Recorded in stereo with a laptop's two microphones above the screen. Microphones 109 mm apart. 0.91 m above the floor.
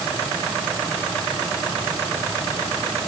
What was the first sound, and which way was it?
Only background noise.